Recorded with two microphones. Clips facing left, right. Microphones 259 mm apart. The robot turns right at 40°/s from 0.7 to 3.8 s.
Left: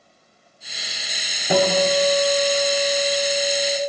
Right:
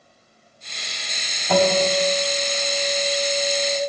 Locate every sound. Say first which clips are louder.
1.5 s a guitar: even; 30° left, 0.8 m; by 3.8 s 120° left, 0.8 m